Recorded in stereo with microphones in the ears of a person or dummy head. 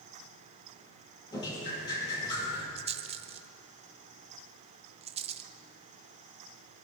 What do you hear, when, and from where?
1.3 s dripping: 25° left (ahead or behind), 7.5 m
2.8 s a rattle: 30° right (ahead or behind), 0.6 m